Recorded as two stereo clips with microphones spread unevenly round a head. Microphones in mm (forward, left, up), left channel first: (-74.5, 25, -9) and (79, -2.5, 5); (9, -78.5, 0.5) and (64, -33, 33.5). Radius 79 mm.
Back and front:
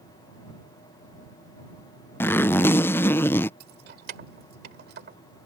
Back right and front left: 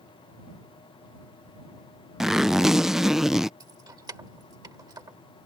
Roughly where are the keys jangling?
Ahead.